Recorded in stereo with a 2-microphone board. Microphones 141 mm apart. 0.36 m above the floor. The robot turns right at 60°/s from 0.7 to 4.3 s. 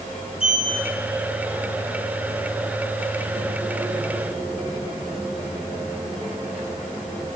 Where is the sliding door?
45° left (ahead or behind), 3.5 m; by 7.3 s 10° right (ahead or behind), 3.5 m.